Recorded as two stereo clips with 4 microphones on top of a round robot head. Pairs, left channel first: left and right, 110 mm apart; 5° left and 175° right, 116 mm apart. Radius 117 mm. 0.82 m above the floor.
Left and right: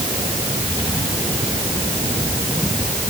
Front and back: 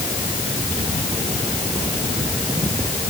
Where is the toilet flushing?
I don't hear a toilet flushing.